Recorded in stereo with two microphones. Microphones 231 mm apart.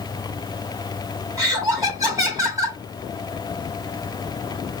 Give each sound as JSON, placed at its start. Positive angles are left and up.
{"t": 1.4, "sound": "laughter", "side_deg": -15, "distance_m": 1.6}